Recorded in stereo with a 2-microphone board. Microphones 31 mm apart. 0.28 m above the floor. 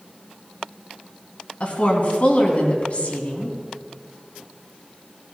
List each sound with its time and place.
1.6 s a woman speaking: 50° left (ahead or behind), 2.5 m